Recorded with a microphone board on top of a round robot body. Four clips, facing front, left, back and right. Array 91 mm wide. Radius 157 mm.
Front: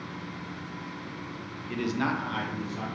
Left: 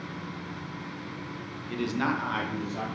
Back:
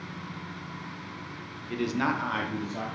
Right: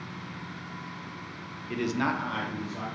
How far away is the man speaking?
About 0.7 m.